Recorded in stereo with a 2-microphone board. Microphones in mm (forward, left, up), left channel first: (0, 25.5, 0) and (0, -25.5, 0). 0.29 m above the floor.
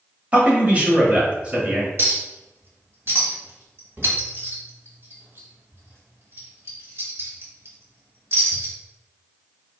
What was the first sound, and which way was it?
A man speaking, 30° right (ahead or behind).